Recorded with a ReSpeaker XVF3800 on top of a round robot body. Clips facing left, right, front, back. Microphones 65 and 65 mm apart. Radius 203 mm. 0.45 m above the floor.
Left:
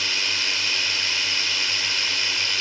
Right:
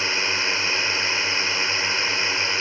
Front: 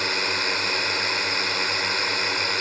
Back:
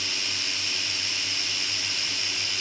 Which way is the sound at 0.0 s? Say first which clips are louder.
Right 3 dB, front 9 dB; 30° right.